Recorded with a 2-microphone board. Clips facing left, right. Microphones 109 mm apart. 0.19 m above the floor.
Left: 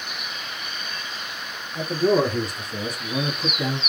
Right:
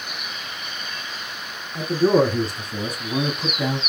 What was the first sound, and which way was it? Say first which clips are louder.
A man speaking: right 3 dB; 35° right (ahead or behind).